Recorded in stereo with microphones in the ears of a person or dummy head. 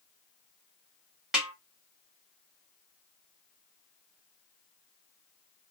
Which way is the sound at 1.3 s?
5° right (ahead or behind).